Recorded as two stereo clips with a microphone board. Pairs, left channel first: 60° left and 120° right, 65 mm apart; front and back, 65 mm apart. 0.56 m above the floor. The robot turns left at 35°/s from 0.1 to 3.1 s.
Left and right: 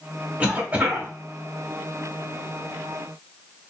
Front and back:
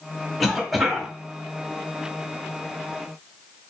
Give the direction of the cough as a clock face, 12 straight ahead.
3 o'clock.